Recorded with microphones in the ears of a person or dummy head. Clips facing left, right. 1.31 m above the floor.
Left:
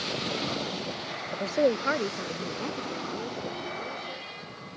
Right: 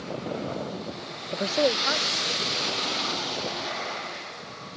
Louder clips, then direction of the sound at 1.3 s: Even; 35° right (ahead or behind).